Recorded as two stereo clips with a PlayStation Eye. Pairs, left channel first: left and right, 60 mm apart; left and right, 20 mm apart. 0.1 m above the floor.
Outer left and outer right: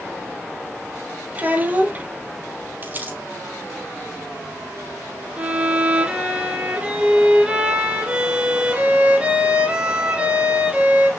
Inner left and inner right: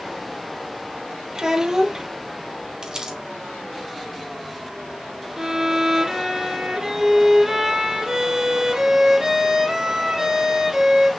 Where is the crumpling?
35° right (ahead or behind), 4.5 m.